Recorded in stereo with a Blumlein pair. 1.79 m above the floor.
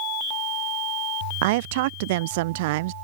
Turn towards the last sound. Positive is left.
turn(degrees=-50)